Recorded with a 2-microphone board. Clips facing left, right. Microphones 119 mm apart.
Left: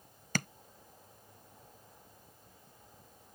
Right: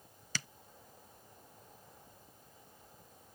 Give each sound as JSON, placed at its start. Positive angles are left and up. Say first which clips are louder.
{"t": 0.3, "sound": "tapping", "louder": "left 9 dB", "side_deg": 50}